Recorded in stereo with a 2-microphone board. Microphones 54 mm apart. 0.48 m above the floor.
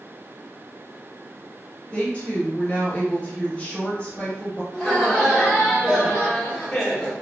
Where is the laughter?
5° left (ahead or behind), 1.2 m.